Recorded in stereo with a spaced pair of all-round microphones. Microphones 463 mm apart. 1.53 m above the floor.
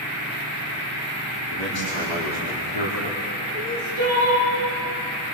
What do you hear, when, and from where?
1.5 s a man speaking: 60° left (ahead or behind), 4.5 m; by 3.2 s 90° left, 4.5 m
3.5 s crying: 80° left, 9 m